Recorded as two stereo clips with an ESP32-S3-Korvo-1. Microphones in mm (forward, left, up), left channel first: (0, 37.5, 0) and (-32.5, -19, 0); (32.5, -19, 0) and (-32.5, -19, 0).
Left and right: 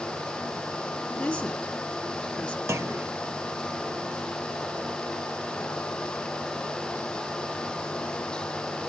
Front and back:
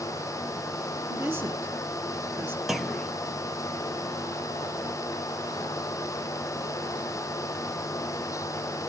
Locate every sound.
1.1 s a woman speaking: 135° left, 1.5 m
2.7 s a clunk: 95° right, 0.6 m